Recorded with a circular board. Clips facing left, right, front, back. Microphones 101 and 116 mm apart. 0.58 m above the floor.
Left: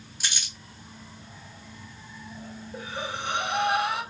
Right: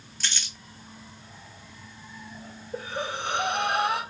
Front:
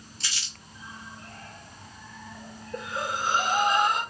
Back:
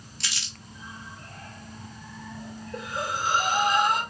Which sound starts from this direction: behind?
Crumpling, at 0.2 s.